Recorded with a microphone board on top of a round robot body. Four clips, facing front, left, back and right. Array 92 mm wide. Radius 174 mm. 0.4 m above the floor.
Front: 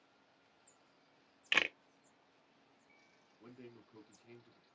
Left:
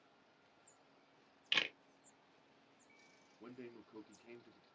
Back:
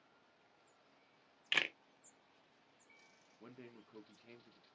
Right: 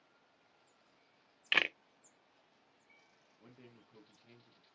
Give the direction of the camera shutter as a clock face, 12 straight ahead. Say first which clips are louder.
Right 7 dB, front 3 dB; 2 o'clock.